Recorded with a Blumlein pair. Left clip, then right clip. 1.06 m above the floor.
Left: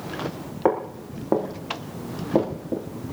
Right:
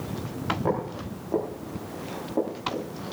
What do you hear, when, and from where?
0.7 s footsteps: 35° left, 6.5 m; by 2.9 s 45° left, 5.5 m